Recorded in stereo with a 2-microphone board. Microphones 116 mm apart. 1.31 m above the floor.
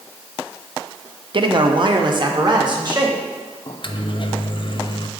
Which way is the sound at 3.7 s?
50° left (ahead or behind).